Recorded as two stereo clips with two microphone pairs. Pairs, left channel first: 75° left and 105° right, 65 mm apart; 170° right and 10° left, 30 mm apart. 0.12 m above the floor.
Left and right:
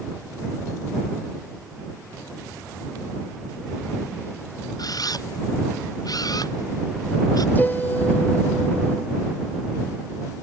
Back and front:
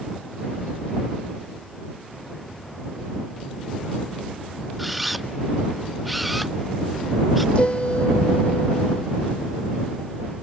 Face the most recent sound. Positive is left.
turn(degrees=140)